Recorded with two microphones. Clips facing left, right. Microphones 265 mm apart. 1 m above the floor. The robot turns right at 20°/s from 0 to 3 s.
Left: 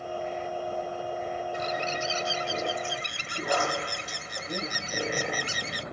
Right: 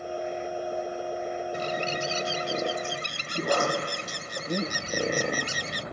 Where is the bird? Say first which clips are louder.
Right 2 dB; 40° right (ahead or behind), 0.6 m; by 5.8 s 50° right (ahead or behind), 0.6 m.